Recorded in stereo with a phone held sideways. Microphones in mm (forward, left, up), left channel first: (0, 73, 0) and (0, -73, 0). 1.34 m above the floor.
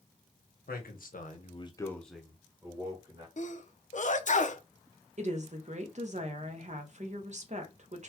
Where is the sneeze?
55° left (ahead or behind), 0.6 m.